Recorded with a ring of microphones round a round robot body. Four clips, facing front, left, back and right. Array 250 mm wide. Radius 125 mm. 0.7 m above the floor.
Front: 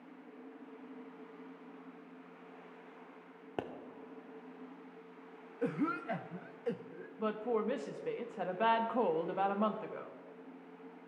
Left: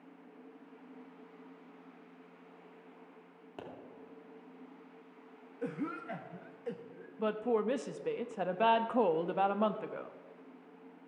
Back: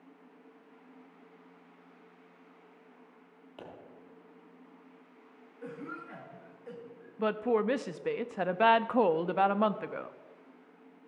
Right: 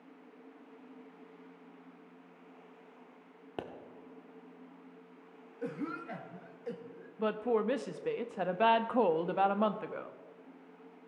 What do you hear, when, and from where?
3.6 s a pop: 30° right, 1.0 m
5.6 s a cough: 10° left, 0.6 m
7.2 s a woman speaking: 170° right, 0.6 m